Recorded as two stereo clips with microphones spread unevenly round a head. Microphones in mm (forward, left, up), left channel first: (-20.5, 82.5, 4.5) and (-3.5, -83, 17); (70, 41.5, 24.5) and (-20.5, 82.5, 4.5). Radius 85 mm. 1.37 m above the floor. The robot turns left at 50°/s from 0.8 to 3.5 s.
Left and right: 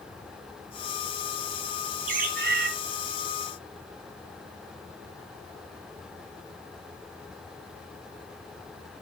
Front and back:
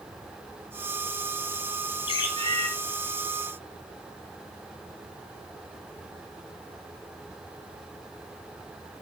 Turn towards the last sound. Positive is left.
turn(degrees=-125)